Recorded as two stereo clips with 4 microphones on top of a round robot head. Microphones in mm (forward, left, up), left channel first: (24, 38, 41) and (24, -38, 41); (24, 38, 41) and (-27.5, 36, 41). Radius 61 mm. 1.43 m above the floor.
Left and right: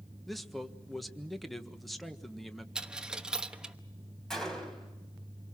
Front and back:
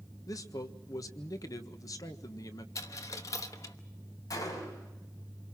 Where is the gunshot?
5° left, 4.5 m.